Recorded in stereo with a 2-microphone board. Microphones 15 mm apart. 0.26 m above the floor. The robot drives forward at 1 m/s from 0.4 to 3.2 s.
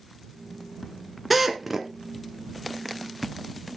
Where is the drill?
5° right (ahead or behind), 2 m.